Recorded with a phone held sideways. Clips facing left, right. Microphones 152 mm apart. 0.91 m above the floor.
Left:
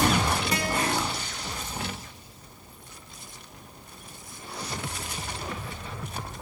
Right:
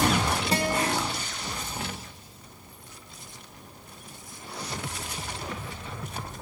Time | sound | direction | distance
0.5 | a guitar | 30° right (ahead or behind) | 1.2 m